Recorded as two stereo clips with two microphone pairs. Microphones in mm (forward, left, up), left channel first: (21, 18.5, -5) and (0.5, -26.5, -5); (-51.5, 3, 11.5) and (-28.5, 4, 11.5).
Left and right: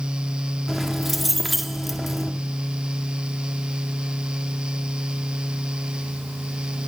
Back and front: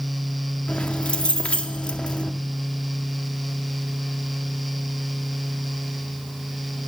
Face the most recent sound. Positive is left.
turn(degrees=155)